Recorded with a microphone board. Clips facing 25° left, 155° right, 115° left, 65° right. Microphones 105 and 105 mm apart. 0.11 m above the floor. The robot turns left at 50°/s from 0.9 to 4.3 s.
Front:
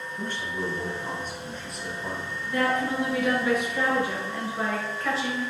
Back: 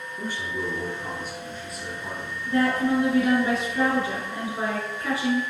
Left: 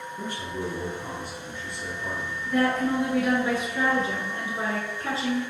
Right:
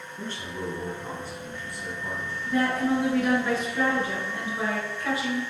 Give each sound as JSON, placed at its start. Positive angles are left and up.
{"t": 0.2, "sound": "a man speaking", "azimuth_deg": 160, "distance_m": 1.1}
{"t": 2.5, "sound": "a woman speaking", "azimuth_deg": -125, "distance_m": 1.4}